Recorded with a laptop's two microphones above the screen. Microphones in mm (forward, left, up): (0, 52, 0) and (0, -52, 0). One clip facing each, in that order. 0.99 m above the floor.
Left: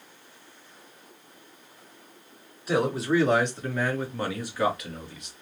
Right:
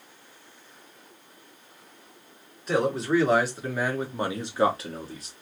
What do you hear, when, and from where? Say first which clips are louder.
2.7 s a man speaking: even; 5° left (ahead or behind), 1.6 m; by 5.3 s 40° right (ahead or behind), 1.0 m